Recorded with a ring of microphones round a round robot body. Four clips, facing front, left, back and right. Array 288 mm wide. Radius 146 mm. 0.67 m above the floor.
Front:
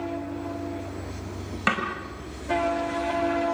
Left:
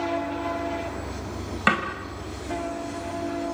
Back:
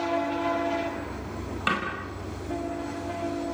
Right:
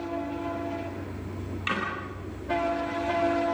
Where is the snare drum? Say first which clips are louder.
Left 8 dB, front 2 dB; 70° left, 4.5 m.